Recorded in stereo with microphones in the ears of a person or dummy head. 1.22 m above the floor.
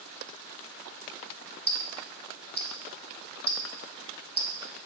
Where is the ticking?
20° left (ahead or behind), 0.6 m.